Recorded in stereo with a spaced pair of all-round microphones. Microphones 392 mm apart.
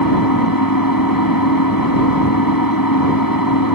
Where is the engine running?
55° left (ahead or behind).